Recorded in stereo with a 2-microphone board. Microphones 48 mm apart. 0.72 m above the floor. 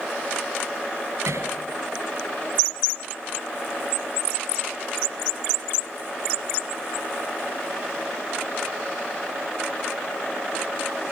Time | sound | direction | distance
1.2 | hammering | 80° right | 9.5 m